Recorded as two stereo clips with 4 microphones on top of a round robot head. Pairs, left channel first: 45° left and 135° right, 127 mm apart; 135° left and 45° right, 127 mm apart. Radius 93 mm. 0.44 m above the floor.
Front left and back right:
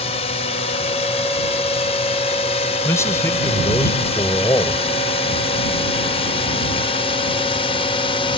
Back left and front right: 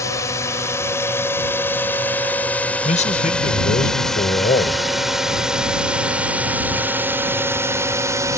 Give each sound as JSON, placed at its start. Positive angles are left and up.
{"t": 0.0, "sound": "a drone", "azimuth_deg": 75}
{"t": 2.9, "sound": "a man speaking", "azimuth_deg": 110}